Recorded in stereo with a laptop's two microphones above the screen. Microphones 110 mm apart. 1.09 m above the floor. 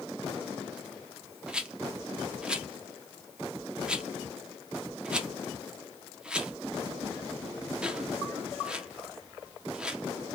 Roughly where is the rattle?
Centre.